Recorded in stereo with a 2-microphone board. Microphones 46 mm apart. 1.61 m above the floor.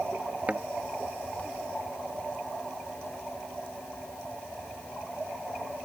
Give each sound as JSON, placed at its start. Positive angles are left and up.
{"t": 0.5, "sound": "a thud", "side_deg": -30}